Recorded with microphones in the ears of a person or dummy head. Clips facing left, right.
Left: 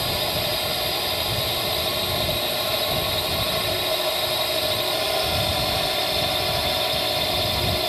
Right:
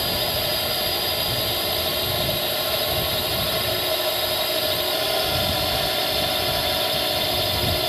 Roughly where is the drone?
Centre.